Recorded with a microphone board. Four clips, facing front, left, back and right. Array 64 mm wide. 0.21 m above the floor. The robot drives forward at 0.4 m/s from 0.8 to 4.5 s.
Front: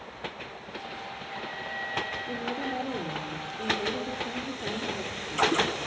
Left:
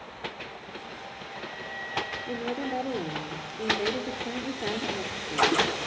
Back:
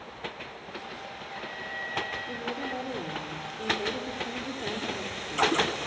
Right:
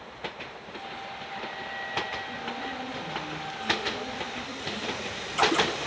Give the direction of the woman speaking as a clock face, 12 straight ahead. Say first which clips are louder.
Left 4 dB, front 2 dB; 9 o'clock.